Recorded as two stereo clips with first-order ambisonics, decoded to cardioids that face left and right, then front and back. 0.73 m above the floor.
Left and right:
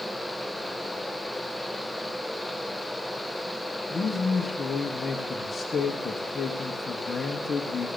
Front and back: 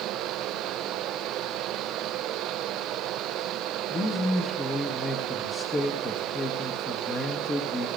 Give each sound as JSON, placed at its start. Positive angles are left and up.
{"t": 3.9, "sound": "a man speaking", "azimuth_deg": 45, "distance_m": 1.1}